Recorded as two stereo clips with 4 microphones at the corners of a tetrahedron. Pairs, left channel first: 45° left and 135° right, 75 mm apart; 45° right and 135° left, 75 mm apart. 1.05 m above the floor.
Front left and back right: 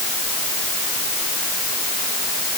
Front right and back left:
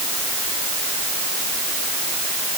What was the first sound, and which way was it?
Only background noise.